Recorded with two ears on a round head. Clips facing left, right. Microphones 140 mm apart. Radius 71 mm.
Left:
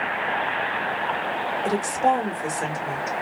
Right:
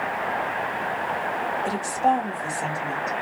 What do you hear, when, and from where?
1.6 s a woman speaking: 60° left (ahead or behind), 1.5 m